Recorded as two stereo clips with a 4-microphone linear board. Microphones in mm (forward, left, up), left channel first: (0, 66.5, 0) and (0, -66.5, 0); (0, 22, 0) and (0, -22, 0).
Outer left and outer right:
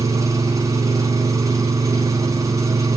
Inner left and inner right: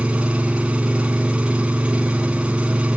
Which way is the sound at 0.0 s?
25° right (ahead or behind).